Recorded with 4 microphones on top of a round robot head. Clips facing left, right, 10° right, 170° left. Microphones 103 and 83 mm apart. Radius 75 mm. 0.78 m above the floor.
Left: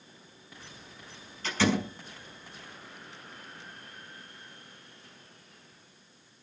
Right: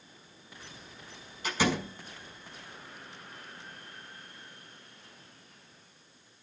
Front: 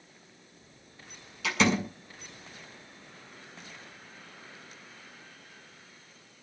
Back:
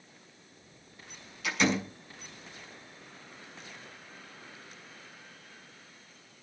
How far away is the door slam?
About 6 m.